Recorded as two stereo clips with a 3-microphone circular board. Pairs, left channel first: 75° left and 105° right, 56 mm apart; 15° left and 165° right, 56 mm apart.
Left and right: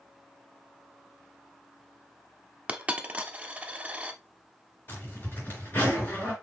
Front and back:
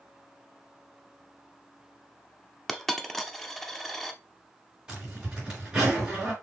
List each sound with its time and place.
2.7 s a dropped coin: 65° right, 0.6 m
4.9 s a zipper: 125° left, 3.5 m